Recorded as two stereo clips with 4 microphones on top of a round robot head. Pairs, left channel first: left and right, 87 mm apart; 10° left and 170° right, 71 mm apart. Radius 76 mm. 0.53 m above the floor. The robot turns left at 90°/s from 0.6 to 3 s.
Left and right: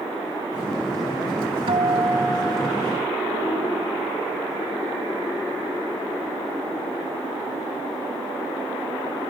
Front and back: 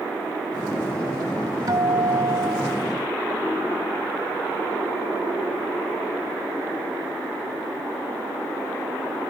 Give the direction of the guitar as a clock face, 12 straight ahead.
4 o'clock.